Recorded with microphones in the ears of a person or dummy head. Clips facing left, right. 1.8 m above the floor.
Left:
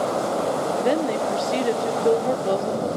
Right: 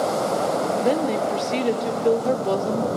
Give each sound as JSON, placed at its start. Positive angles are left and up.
{"t": 0.8, "sound": "a woman speaking", "side_deg": 10, "distance_m": 1.4}